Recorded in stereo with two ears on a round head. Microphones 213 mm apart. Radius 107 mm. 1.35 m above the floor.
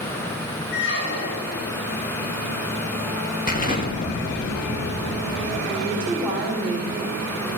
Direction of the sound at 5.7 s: 5° left (ahead or behind).